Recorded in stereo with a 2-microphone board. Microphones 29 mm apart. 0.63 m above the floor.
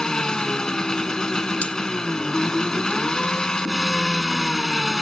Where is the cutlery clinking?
55° left (ahead or behind).